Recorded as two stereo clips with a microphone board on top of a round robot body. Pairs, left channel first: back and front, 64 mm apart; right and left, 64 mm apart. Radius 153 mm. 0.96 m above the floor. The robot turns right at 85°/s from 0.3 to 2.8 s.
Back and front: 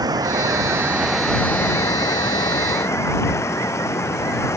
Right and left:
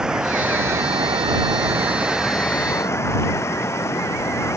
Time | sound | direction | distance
0.0 | running water | 10° left | ?